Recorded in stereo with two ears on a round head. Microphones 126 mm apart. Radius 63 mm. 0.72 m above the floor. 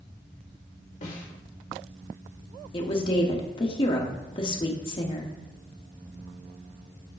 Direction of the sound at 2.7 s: 35° left (ahead or behind).